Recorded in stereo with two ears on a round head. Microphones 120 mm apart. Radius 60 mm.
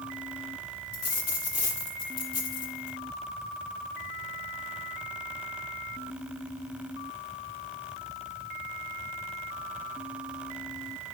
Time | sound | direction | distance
0.9 | a dropped coin | 75° left (ahead or behind) | 5.5 m